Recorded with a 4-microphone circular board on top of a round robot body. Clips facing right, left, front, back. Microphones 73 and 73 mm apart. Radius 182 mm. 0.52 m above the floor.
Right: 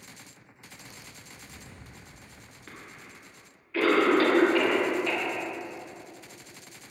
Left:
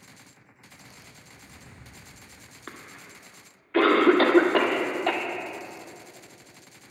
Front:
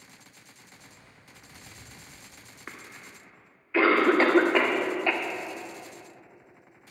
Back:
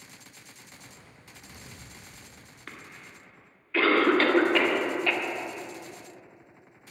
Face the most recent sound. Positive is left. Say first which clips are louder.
# left 3 dB, front 1 dB
turn(degrees=70)